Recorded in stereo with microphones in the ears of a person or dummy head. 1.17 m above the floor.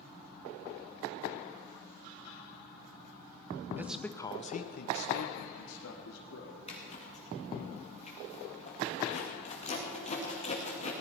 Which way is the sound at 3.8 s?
10° right (ahead or behind).